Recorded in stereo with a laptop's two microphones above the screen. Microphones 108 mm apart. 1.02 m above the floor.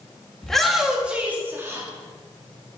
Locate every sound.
0.4 s a shout: 5° left (ahead or behind), 2 m; by 1.9 s 25° right (ahead or behind), 2.5 m